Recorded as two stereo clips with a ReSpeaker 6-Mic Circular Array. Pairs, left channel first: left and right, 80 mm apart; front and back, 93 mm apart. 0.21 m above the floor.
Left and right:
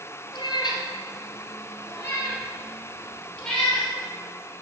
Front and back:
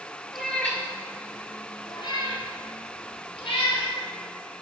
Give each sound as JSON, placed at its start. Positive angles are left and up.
{"t": 0.3, "sound": "a cat meowing", "azimuth_deg": 85, "distance_m": 1.9}